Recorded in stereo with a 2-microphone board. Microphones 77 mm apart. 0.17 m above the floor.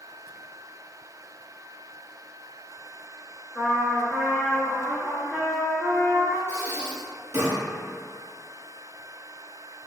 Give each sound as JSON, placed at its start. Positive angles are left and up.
{"t": 3.5, "sound": "a trumpet", "side_deg": -10, "distance_m": 0.7}
{"t": 6.5, "sound": "breathing", "side_deg": -35, "distance_m": 0.9}